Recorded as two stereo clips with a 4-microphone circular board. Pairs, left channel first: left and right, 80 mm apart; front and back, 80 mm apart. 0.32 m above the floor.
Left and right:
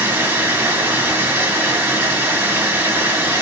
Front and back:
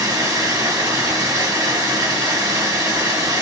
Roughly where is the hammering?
I don't hear hammering.